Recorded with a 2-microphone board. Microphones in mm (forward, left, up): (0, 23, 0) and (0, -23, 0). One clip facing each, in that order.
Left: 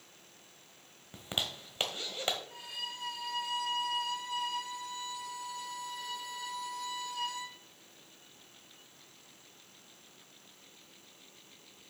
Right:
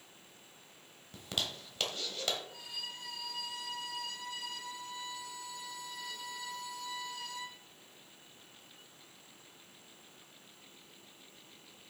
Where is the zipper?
25° left (ahead or behind), 1.3 m.